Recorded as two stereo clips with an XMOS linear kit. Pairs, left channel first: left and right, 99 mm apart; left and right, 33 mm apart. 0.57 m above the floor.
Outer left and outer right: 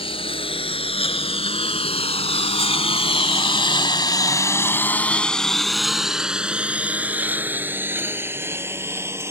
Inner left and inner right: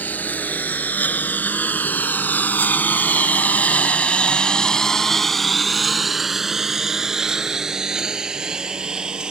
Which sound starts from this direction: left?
A lawn mower, at 0.0 s.